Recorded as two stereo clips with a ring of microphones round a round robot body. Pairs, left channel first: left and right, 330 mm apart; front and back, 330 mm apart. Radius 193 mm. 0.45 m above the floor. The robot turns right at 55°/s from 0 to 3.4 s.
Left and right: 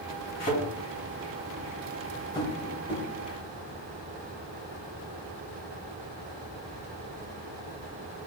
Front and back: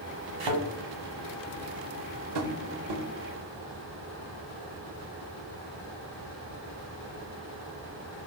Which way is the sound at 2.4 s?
170° left.